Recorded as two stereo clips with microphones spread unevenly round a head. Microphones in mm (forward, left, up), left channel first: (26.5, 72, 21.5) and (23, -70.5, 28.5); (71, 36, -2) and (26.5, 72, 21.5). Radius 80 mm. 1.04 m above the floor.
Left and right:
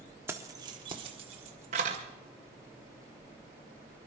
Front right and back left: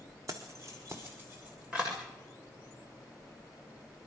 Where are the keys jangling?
165° right, 1.2 m; by 2.0 s 135° right, 2.5 m.